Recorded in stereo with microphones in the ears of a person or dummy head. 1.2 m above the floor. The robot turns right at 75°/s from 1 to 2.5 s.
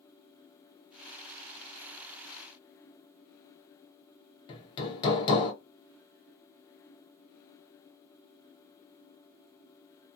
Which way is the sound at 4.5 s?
30° left (ahead or behind).